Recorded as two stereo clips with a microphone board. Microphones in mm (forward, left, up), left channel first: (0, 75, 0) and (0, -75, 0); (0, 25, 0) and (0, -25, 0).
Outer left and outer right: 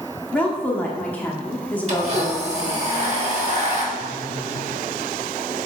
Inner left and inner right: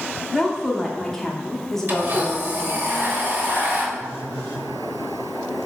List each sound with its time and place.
0.3 s a woman speaking: 10° left (ahead or behind), 0.8 m
1.9 s a blender: 45° right (ahead or behind), 1.0 m
4.0 s a phone buzzing: 15° left (ahead or behind), 2 m